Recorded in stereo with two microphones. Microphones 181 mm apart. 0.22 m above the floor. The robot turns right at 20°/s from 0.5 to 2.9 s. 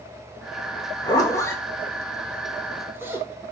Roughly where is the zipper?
Left.